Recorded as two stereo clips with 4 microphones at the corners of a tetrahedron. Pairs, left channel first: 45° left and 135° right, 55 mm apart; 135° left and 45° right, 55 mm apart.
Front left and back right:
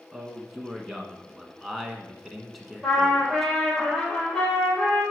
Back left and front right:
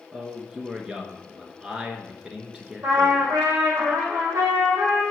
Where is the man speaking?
50° right, 1.1 m.